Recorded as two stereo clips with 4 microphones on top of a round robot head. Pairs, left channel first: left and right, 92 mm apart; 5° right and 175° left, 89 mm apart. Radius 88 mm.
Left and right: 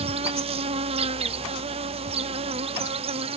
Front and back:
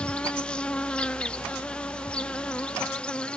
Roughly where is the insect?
Right.